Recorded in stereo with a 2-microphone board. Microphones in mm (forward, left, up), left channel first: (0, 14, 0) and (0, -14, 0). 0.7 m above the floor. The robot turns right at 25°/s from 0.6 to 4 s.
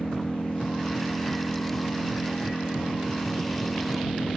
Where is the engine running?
35° left; by 4.4 s 120° left.